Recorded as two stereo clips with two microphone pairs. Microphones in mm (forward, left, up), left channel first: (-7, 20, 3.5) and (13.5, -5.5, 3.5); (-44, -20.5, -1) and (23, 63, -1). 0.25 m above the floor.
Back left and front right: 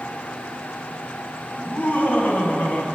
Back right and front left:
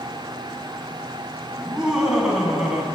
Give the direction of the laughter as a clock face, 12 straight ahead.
8 o'clock.